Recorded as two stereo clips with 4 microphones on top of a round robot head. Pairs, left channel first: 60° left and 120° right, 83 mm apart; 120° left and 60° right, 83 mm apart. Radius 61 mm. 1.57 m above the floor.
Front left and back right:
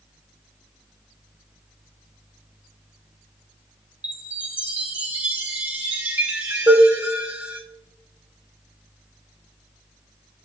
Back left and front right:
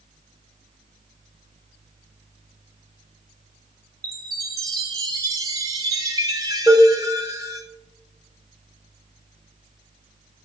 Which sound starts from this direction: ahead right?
A chime, at 4.0 s.